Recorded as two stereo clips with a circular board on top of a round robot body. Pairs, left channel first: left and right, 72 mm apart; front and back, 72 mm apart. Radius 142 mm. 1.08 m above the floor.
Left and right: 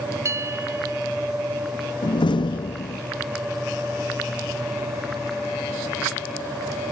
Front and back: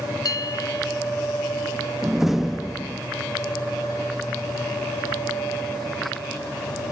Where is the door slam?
95° left.